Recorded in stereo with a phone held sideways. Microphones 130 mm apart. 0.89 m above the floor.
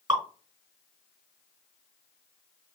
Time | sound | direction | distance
0.1 | dripping | 25° right (ahead or behind) | 3 m